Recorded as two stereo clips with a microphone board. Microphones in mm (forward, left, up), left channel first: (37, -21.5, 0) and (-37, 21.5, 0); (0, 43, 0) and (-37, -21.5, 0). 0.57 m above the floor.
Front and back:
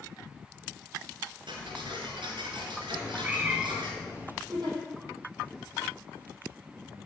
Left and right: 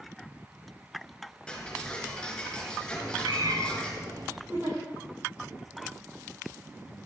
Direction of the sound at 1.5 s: 140° left.